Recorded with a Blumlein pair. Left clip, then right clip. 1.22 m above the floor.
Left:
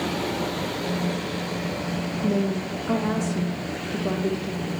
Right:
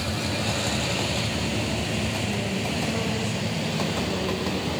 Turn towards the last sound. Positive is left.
turn(degrees=55)